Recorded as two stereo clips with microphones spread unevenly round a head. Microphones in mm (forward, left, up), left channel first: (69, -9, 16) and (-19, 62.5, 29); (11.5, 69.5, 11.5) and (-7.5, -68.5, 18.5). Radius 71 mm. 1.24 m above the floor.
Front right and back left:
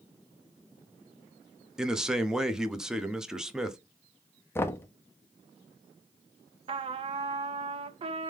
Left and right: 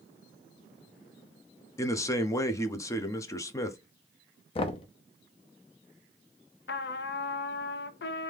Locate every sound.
1.8 s a man speaking: 50° left, 0.6 m
4.5 s knocking: 30° left, 0.6 m
6.7 s a trumpet: 100° left, 0.5 m